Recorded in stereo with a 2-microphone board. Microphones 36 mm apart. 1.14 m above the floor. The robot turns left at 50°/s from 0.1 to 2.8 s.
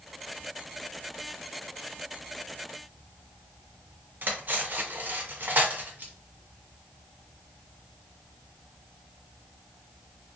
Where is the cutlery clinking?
60° right (ahead or behind), 0.6 m.